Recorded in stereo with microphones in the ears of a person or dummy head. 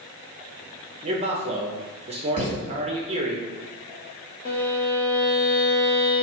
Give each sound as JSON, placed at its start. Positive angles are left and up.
{"t": 1.0, "sound": "a man speaking", "side_deg": -30, "distance_m": 0.8}
{"t": 2.4, "sound": "a thud", "side_deg": -35, "distance_m": 1.8}
{"t": 4.5, "sound": "a violin", "side_deg": 40, "distance_m": 0.9}